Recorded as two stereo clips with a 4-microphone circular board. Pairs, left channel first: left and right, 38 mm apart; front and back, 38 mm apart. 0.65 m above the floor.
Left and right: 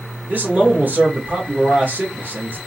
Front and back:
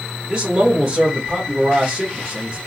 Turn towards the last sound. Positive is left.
turn(degrees=-100)